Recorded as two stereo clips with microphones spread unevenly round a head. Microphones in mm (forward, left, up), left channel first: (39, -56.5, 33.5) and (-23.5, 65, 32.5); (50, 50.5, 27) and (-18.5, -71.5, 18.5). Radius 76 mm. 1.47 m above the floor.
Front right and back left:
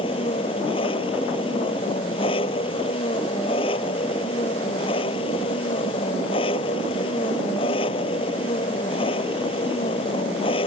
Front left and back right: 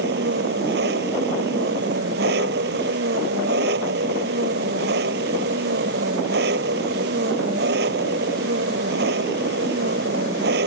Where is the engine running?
115° right.